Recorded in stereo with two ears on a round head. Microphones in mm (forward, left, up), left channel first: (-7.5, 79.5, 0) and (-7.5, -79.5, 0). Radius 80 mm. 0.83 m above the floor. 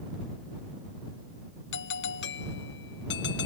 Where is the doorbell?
75° left (ahead or behind).